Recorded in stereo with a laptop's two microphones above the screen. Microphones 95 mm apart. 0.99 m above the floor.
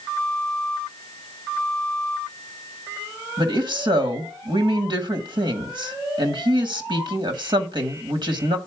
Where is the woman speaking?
55° right (ahead or behind), 1.3 m.